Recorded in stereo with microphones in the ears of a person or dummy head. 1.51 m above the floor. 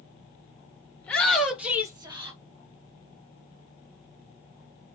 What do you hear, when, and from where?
1.0 s a shout: 5° left (ahead or behind), 1.1 m; by 2.4 s 40° right (ahead or behind), 0.8 m